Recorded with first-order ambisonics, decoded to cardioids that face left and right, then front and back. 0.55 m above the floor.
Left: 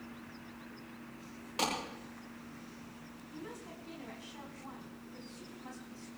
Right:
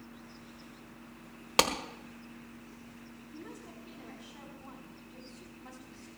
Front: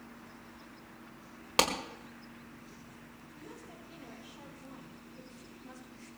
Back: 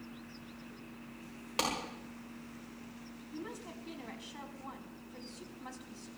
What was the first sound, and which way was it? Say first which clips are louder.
A clap: right 7 dB, front 6 dB; 60° right.